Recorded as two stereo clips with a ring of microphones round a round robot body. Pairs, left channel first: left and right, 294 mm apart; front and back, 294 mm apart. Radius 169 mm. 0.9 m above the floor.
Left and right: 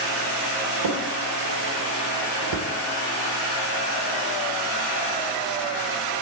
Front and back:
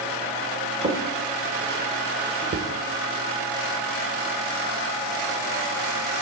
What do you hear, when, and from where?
0.8 s a drawer: 110° right, 1.2 m